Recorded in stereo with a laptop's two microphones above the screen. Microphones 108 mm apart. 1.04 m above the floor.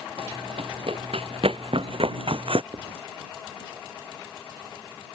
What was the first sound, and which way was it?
Running footsteps, 70° right (ahead or behind).